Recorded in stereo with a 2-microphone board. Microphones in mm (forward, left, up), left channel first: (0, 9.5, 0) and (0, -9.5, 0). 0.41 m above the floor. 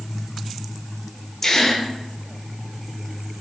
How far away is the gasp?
About 0.5 m.